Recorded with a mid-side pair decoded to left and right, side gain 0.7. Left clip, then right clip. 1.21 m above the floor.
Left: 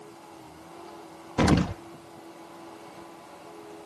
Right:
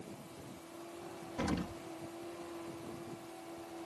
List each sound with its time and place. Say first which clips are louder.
1.4 s an explosion: left 14 dB; 55° left